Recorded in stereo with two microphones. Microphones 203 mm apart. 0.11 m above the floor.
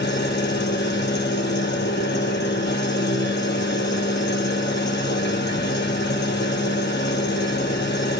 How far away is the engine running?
About 0.7 m.